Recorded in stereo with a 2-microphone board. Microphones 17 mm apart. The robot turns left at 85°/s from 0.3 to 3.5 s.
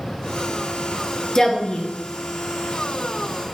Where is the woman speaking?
150° left, 0.7 m; by 1.9 s 100° left, 0.7 m.